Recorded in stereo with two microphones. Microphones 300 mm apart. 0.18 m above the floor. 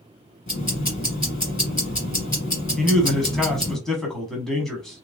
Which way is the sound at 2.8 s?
Centre (ahead or behind).